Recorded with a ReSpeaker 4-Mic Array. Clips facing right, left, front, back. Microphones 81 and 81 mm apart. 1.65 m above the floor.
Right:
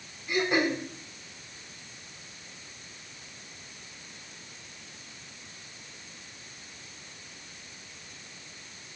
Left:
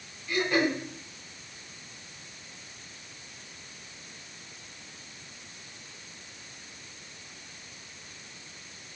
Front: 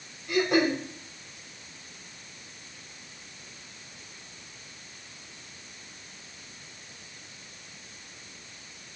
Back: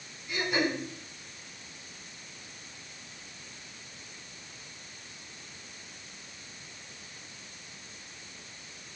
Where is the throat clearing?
20° right, 4 m.